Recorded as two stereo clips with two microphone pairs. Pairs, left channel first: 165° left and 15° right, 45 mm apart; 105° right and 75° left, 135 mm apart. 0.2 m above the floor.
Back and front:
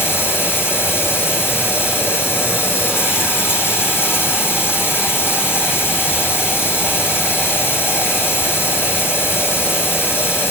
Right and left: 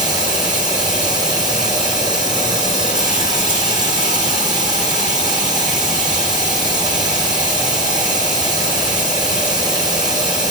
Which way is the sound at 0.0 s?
135° left.